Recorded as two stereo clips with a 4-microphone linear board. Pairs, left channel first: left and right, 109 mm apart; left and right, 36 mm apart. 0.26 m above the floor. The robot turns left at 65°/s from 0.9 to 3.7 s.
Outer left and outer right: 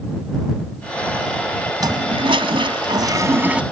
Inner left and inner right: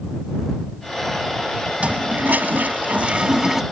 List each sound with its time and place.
1.8 s a toilet flushing: 50° right; by 3.6 s 165° right